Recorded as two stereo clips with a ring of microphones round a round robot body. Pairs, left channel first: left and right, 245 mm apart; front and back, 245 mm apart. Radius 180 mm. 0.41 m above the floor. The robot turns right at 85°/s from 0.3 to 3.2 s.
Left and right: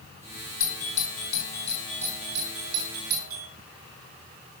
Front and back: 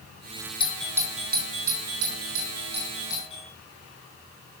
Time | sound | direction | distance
0.6 | a doorbell | 70° left | 4 m